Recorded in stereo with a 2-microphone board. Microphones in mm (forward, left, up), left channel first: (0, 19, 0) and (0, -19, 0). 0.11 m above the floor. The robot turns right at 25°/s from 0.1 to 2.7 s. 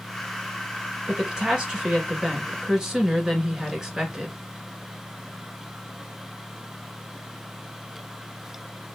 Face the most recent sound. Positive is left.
turn(degrees=-15)  # may be behind; listen again after turning